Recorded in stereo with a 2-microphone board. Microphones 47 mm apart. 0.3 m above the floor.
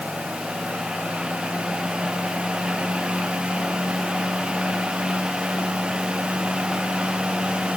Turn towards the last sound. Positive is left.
No sound to turn to.